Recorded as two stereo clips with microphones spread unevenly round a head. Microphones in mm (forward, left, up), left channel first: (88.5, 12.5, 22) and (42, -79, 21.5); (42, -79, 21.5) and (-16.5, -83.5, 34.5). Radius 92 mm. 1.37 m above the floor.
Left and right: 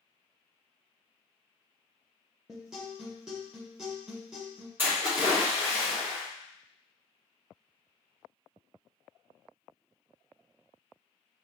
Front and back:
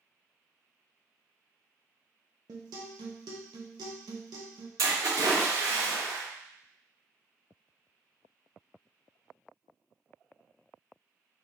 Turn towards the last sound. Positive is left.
turn(degrees=165)